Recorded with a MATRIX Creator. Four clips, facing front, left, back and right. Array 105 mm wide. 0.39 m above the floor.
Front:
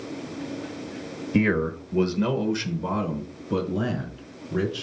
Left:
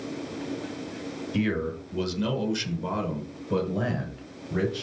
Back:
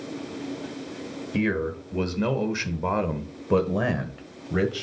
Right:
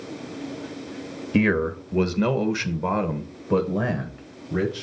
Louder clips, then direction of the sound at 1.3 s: Right 7 dB, front 3 dB; 65° right.